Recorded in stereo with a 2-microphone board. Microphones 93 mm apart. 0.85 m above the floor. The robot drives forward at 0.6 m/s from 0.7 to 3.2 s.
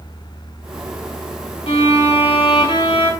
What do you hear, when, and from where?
1.7 s a violin: 80° left, 2.5 m; by 3.1 s 65° left (ahead or behind), 2.5 m